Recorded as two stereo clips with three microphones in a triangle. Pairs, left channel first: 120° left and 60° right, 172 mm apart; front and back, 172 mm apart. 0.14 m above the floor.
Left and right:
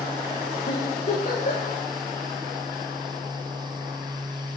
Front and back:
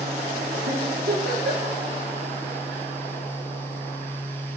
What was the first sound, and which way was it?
A giggle, 165° left.